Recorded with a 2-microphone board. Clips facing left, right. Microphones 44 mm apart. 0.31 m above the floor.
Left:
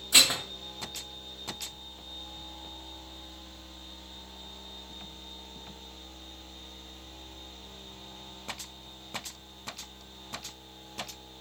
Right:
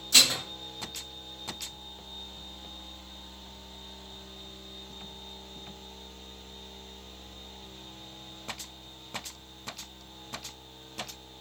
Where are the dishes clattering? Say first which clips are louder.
Even; 20° left (ahead or behind), 0.6 m.